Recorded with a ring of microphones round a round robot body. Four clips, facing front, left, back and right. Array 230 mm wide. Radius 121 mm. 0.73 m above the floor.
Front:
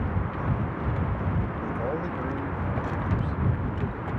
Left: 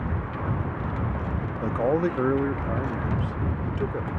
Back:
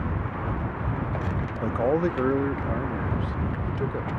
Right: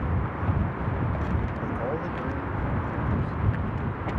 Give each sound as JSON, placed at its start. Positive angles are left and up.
{"t": 1.6, "sound": "a man speaking", "azimuth_deg": 140}